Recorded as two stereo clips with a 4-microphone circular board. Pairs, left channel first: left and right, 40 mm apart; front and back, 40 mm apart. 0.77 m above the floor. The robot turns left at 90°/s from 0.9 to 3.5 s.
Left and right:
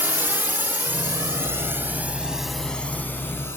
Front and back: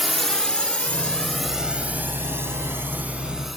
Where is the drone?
95° right; by 3.6 s 95° left.